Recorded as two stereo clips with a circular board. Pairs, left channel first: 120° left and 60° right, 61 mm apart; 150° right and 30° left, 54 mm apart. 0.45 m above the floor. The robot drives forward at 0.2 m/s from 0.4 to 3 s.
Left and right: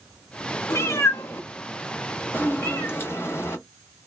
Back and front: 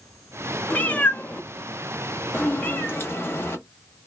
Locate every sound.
0.7 s a cat meowing: 150° left, 0.6 m; by 4.1 s 165° left, 1.0 m